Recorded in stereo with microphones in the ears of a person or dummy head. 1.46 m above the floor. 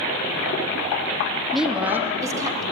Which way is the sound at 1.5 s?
5° left (ahead or behind).